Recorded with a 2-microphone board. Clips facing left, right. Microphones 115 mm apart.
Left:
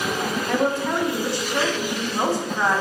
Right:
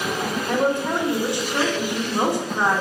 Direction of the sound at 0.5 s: 20° right (ahead or behind).